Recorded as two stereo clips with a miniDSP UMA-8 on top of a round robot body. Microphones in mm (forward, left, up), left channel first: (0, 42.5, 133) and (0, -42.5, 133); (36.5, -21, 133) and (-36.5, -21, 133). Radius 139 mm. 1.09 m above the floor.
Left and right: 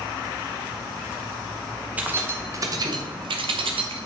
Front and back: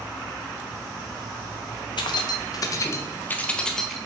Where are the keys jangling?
20° right, 0.8 m; by 4.0 s 90° right, 0.9 m.